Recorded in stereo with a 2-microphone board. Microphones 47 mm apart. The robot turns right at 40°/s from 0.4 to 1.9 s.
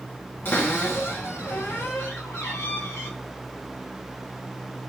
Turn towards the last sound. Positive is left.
turn(degrees=110)